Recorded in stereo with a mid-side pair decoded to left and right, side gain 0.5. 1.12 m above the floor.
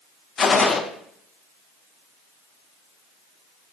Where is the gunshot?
40° left, 0.6 m.